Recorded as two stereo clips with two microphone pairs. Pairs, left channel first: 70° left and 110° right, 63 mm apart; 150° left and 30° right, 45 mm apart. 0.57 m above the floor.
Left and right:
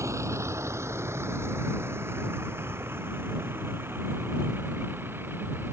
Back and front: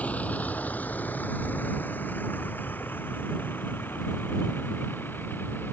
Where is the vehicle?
150° right; by 5.7 s 170° right.